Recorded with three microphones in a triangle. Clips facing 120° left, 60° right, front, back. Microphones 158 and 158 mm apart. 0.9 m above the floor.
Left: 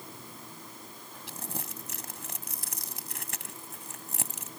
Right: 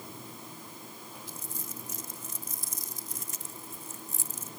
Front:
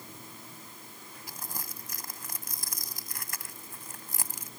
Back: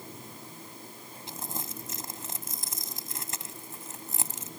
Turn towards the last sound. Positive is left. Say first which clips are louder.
# left 6 dB, back 5 dB
turn(degrees=115)